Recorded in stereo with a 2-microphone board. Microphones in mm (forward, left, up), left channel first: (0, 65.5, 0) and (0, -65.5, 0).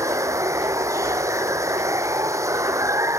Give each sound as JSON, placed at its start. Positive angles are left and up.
{"t": 0.0, "sound": "running water", "side_deg": -25}